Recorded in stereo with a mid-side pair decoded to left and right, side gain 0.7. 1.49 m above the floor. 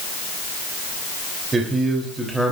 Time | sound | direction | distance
1.5 | a man speaking | 25° right | 3.5 m